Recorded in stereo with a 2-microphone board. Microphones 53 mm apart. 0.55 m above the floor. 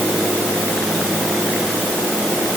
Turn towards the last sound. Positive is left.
No sound to turn to.